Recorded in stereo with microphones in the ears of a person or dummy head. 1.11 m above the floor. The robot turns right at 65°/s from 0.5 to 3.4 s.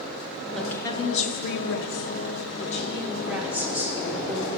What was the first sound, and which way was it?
A woman speaking, straight ahead.